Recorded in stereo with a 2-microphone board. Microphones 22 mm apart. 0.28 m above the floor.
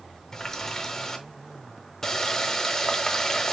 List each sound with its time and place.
0.3 s a running tap: 20° left (ahead or behind), 0.9 m